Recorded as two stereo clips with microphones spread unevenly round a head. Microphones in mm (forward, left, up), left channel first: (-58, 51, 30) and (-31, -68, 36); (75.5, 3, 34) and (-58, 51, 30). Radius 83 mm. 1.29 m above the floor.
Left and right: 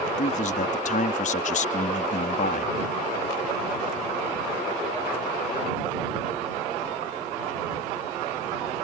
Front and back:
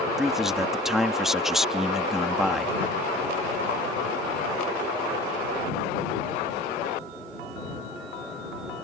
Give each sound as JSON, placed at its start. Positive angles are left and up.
{"t": 0.2, "sound": "a man speaking", "azimuth_deg": 75}